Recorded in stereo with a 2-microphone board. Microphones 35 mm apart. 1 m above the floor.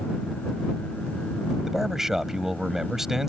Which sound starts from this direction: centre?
A man speaking, at 1.7 s.